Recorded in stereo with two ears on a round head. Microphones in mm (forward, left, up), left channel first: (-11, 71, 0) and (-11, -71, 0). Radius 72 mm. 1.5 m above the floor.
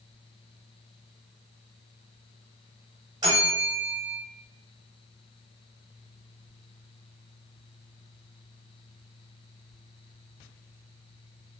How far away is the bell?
About 1.4 m.